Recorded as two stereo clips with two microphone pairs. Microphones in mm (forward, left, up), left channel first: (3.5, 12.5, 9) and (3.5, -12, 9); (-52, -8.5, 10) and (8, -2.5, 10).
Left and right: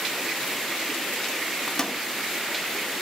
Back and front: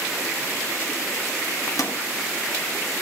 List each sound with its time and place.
1.7 s a microwave: 165° left, 1.0 m